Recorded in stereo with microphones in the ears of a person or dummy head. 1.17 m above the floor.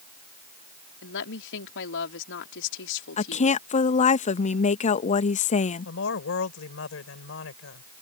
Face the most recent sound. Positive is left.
turn(degrees=70)  # may be behind; listen again after turning